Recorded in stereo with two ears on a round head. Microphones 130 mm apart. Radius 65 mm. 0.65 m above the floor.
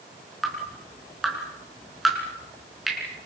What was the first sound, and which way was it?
Dripping, centre (ahead or behind).